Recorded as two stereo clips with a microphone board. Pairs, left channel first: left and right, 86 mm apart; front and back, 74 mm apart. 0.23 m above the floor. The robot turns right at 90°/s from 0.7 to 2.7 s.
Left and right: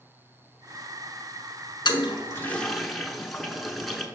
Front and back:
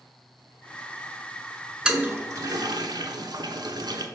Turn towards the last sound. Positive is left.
turn(degrees=180)